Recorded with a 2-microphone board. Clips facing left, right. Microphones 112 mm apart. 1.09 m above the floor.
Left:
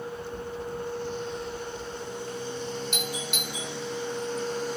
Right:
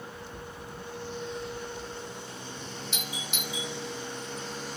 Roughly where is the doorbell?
Left.